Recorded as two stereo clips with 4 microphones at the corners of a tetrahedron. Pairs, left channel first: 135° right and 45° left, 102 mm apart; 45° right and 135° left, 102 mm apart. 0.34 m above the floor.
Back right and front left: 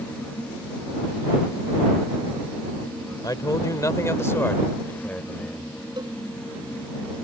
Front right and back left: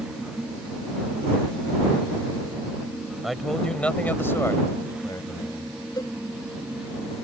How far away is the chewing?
No chewing in this recording.